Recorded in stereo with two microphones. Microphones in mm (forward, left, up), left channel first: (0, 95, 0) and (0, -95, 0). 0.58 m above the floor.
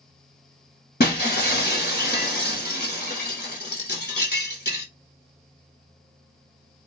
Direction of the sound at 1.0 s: 60° left (ahead or behind).